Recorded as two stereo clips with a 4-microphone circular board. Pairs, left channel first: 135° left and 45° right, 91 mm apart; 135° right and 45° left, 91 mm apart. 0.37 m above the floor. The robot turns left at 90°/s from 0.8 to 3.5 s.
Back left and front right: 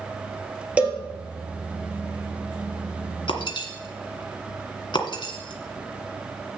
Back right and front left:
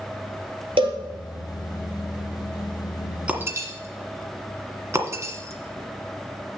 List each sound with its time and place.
0.8 s a cowbell: 30° left, 2.5 m; by 1.0 s 10° left, 2.5 m
3.3 s breaking glass: 125° left, 1.6 m; by 6.6 s 105° left, 1.6 m